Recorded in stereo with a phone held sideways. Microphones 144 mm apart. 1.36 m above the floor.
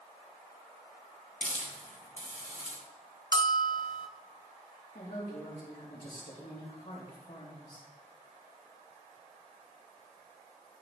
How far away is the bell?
About 0.6 m.